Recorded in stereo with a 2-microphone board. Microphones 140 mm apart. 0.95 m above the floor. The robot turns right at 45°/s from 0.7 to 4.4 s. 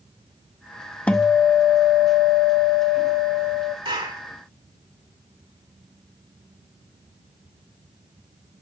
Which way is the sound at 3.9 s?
40° right (ahead or behind).